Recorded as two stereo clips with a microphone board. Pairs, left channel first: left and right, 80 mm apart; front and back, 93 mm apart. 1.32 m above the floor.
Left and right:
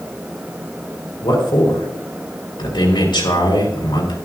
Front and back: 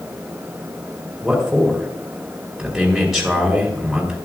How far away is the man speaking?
About 3.5 m.